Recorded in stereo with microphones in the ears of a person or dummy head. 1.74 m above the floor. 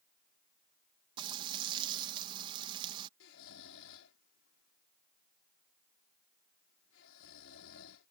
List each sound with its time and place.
1.2 s frying: 25° right (ahead or behind)
3.2 s snoring: 80° left